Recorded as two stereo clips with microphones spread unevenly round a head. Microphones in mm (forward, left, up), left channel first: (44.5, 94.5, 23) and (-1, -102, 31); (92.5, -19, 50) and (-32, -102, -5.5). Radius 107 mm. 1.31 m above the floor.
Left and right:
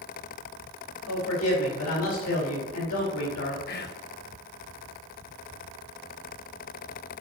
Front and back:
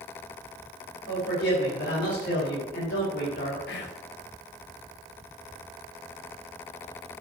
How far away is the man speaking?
About 4 m.